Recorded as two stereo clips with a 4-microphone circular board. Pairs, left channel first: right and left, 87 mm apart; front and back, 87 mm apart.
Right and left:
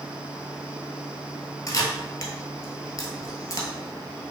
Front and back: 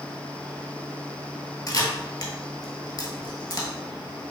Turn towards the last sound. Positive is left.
turn(degrees=-45)